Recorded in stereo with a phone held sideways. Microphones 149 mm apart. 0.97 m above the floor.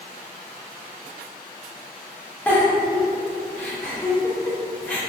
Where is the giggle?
10° left (ahead or behind), 0.8 m.